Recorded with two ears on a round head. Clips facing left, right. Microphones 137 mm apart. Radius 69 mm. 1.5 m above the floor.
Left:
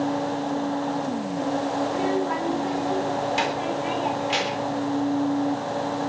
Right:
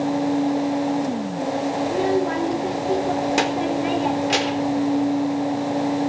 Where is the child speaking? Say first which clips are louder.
Right 3 dB; 55° right (ahead or behind), 4 m.